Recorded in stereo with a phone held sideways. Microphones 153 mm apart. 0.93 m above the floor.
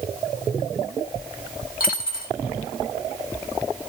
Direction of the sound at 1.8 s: 70° left (ahead or behind).